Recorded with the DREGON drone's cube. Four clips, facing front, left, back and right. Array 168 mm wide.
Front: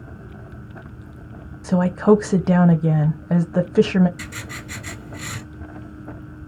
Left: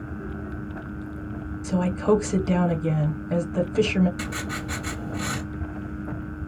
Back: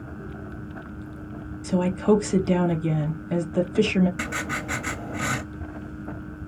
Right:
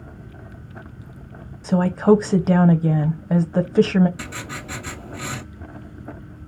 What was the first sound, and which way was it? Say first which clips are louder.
A woman speaking: right 6 dB, front 5 dB; 40° right.